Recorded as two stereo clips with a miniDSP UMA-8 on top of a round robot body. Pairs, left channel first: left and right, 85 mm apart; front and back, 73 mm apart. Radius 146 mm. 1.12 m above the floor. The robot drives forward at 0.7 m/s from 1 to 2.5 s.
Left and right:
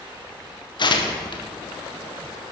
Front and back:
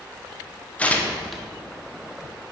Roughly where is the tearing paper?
Left.